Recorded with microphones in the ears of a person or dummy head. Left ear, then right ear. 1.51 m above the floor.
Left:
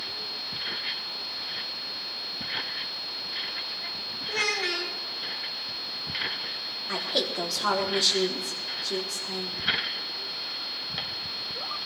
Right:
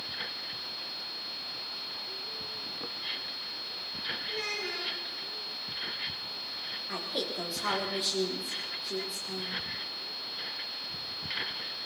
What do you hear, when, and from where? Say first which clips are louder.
4.3 s a child speaking: left 7 dB; 50° left (ahead or behind), 4 m
6.9 s a woman speaking: left 8 dB; 20° left (ahead or behind), 4 m